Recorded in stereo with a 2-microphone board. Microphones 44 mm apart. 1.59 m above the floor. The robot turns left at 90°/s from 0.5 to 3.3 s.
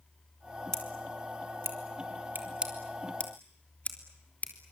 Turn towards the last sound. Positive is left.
turn(degrees=40)  # may be behind; listen again after turning